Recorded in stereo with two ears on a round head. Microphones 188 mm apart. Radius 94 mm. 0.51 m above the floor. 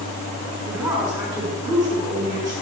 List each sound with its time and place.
0.7 s a woman speaking: 15° right (ahead or behind), 6 m